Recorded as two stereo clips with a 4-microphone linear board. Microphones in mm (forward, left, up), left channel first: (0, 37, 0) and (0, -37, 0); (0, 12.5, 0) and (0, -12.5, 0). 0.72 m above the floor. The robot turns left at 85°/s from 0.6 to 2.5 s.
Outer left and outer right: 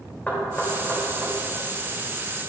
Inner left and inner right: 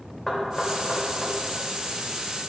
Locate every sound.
0.3 s knocking: 20° left (ahead or behind), 2.5 m; by 1.3 s 40° right (ahead or behind), 2.5 m